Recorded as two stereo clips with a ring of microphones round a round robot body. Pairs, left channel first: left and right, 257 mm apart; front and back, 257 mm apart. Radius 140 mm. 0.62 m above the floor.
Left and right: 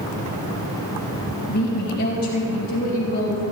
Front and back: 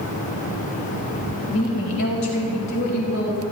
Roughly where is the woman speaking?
Ahead left.